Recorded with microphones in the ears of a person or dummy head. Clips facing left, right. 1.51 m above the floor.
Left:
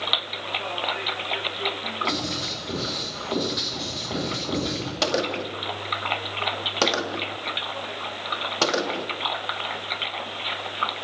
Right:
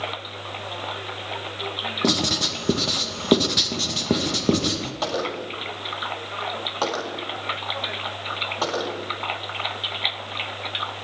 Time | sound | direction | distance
2.0 | writing | 70° right (ahead or behind) | 2 m
5.0 | a gunshot | 30° left (ahead or behind) | 2 m